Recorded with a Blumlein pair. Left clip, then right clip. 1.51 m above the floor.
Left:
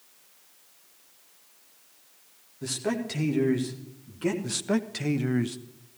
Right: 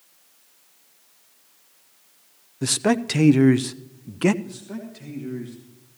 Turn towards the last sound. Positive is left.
turn(degrees=55)